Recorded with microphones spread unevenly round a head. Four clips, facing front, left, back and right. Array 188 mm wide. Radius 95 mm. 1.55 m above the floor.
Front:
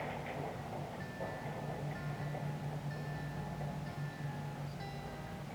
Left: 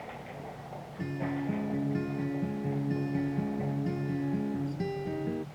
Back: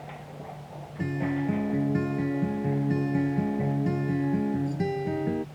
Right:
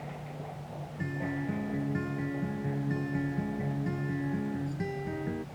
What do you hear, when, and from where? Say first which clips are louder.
1.0 s a guitar: left 1 dB, back 14 dB; 170° left